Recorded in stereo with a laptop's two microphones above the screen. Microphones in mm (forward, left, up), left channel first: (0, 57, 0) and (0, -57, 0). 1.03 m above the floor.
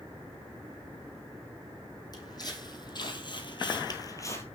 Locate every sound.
2.1 s footsteps: 35° left (ahead or behind), 2.5 m; by 4.5 s 25° left (ahead or behind), 1.5 m